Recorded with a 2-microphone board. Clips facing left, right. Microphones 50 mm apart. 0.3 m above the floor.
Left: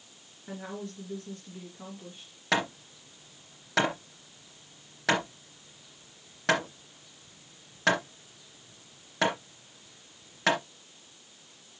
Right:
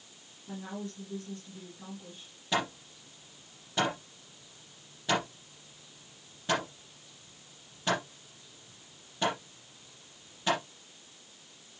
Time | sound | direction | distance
0.5 | a woman speaking | 75° left (ahead or behind) | 4 m
2.5 | hammering | 75° left (ahead or behind) | 3 m